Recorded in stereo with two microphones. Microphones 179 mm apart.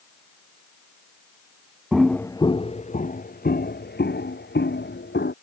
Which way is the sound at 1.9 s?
5° right (ahead or behind).